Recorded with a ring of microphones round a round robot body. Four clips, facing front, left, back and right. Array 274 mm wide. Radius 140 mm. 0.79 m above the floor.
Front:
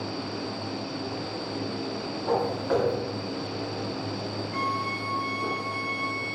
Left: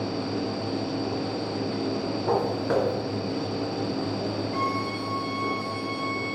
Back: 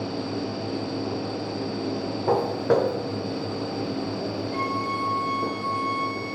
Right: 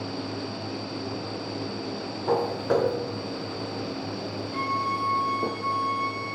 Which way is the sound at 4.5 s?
120° left.